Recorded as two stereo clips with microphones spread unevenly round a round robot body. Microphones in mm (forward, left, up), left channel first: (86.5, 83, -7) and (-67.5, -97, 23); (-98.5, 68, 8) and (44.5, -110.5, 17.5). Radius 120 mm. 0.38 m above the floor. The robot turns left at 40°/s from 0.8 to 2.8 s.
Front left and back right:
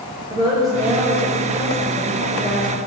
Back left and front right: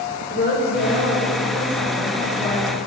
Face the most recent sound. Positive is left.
turn(degrees=70)